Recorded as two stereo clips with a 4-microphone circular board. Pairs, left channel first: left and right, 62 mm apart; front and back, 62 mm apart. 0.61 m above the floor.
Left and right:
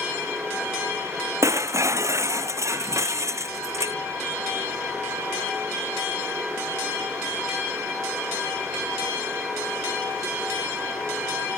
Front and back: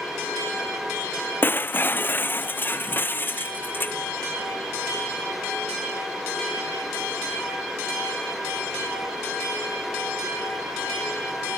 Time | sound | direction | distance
1.4 | breaking glass | 55° right | ?